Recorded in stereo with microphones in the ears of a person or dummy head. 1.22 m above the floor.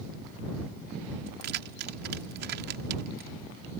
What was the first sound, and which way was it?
Keys jangling, 65° right (ahead or behind).